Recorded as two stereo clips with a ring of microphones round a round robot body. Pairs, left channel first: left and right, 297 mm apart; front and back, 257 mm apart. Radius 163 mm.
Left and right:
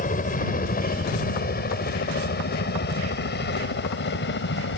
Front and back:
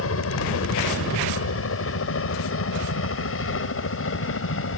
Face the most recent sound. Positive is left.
turn(degrees=35)